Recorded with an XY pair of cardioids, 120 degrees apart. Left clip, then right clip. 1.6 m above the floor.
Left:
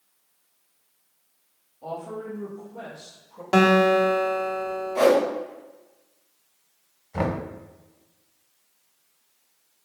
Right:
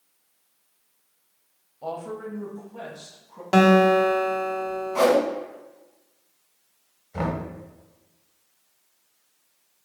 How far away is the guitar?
About 0.6 m.